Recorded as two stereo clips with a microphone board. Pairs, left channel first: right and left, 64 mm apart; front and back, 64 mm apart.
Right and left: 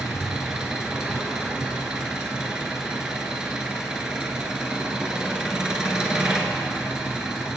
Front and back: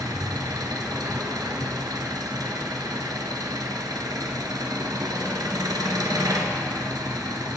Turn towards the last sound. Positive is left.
turn(degrees=170)